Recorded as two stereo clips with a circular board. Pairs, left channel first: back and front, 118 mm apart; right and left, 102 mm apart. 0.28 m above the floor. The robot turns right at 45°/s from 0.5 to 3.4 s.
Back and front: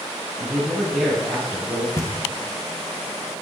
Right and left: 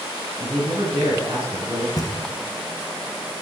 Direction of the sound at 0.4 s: 70° left.